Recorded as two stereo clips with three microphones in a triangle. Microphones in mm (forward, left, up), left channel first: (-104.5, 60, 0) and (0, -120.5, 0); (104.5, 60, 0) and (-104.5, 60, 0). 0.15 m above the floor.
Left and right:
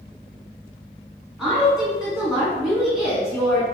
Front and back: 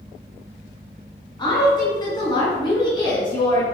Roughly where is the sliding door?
I don't hear a sliding door.